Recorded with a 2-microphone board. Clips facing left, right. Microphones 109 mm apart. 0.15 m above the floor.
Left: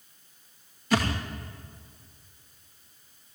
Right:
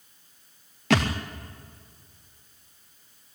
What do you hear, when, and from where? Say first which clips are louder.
0.9 s a thud: right 3 dB; 85° right, 3 m